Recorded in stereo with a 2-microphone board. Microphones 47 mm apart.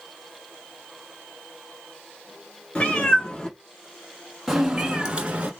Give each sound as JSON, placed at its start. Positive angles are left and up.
{"t": 2.8, "sound": "a cat meowing", "side_deg": 30, "distance_m": 1.0}